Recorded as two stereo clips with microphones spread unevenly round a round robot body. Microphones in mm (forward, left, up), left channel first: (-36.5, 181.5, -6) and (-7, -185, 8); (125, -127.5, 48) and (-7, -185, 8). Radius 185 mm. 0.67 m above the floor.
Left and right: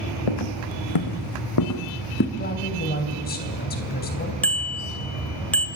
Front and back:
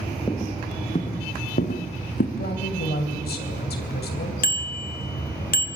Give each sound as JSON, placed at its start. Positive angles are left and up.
{"t": 0.3, "sound": "footsteps", "azimuth_deg": 95, "distance_m": 2.0}
{"t": 2.4, "sound": "a man speaking", "azimuth_deg": 30, "distance_m": 3.0}
{"t": 4.4, "sound": "a bicycle bell", "azimuth_deg": 10, "distance_m": 2.0}